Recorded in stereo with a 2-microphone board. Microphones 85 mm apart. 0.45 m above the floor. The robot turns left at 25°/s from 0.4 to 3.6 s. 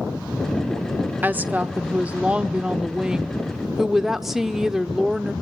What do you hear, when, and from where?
1.2 s a woman speaking: 20° right (ahead or behind), 0.8 m; by 5.3 s centre (ahead or behind), 0.8 m